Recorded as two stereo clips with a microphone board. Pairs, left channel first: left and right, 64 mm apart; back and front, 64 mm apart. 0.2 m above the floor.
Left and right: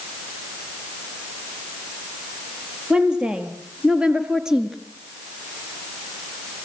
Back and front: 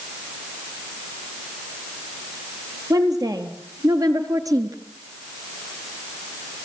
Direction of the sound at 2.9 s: 15° right.